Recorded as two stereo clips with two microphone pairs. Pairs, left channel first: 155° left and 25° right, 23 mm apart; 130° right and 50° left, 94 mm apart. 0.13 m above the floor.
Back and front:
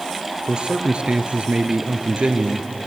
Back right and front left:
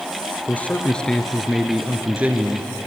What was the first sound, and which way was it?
A man speaking, 60° right.